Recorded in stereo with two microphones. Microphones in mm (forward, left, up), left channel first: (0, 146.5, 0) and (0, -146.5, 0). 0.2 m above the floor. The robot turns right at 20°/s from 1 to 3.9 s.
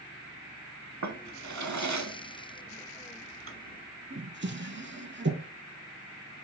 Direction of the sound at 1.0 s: 65° right (ahead or behind).